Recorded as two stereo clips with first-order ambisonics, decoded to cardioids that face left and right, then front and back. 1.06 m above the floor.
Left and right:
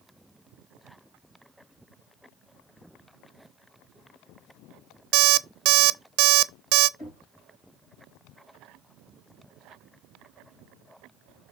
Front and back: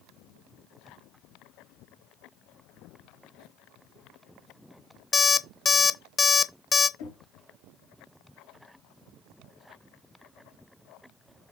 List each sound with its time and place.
5.1 s an alarm clock: 65° right, 0.6 m
7.0 s knocking: 15° left, 4 m